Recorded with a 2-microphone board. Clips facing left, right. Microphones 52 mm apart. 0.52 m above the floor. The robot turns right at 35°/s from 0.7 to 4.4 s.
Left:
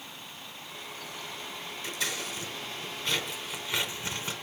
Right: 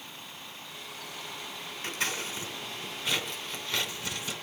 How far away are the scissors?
About 3 m.